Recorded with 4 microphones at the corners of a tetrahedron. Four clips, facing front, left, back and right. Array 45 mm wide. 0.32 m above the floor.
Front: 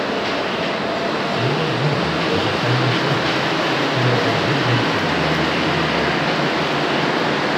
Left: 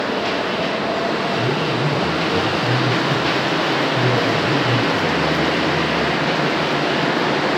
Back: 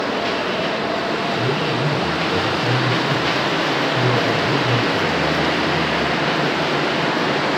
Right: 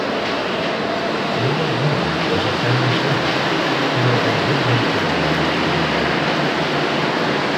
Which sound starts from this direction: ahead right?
A man speaking, at 1.4 s.